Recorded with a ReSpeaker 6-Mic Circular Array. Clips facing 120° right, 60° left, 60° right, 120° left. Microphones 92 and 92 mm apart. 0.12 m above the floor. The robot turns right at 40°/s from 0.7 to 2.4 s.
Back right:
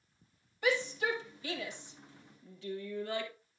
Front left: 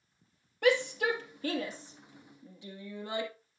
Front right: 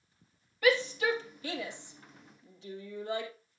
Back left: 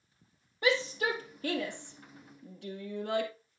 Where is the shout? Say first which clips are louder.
Front left 5 dB, front right 2 dB; 65° left, 3 m; by 3.3 s 130° left, 3 m.